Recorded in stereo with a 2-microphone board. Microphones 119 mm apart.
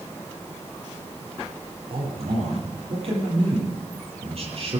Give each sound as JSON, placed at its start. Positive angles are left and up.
{"t": 1.9, "sound": "a man speaking", "side_deg": -55, "distance_m": 8.5}